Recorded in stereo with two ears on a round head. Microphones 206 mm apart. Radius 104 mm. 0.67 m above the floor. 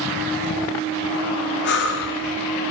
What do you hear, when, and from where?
1.6 s breathing: 50° left (ahead or behind), 1.5 m